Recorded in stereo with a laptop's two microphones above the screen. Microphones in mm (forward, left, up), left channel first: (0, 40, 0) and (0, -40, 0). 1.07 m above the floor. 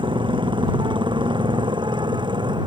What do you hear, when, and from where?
0.0 s a motorcycle: 80° right; by 2.7 s 70° right (ahead or behind)